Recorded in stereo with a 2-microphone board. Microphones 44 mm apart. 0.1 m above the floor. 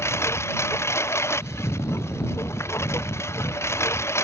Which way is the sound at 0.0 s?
85° left.